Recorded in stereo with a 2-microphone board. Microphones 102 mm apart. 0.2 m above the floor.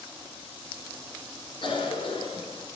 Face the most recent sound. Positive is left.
turn(degrees=60)  # may be behind; listen again after turning